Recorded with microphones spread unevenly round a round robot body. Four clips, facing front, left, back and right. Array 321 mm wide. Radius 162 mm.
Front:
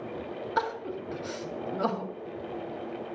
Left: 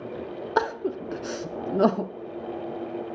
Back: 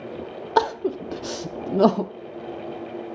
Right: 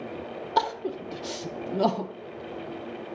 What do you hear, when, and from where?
0.6 s crying: 165° left, 0.6 m